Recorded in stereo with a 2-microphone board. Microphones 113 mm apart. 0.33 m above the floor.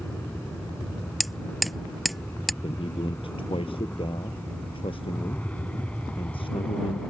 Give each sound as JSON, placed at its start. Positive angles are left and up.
{"t": 0.0, "sound": "an aircraft", "side_deg": 15}
{"t": 1.2, "sound": "hammering", "side_deg": 0}
{"t": 2.6, "sound": "a man speaking", "side_deg": 50}